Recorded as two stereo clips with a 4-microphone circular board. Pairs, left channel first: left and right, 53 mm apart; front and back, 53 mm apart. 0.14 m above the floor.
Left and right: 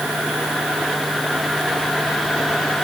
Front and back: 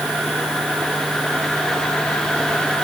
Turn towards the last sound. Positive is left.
No sound to turn to.